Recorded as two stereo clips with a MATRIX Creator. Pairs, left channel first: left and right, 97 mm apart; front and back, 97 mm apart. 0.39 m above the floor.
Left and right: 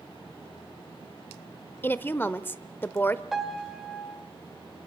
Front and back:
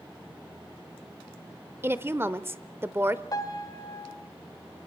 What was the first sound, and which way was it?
A woman speaking, 140° left.